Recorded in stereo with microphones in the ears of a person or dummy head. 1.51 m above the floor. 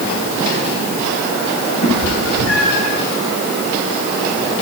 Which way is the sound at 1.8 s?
75° left (ahead or behind).